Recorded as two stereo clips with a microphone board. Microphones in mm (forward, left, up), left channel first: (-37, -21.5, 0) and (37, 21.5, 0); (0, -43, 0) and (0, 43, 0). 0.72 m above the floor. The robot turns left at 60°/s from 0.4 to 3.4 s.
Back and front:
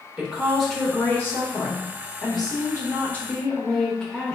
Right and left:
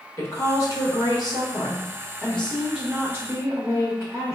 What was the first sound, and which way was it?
A woman speaking, 50° right.